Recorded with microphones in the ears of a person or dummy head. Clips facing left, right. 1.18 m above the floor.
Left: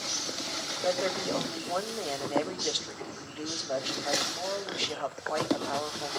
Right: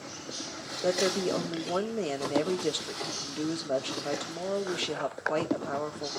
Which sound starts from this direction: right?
A woman speaking, at 0.8 s.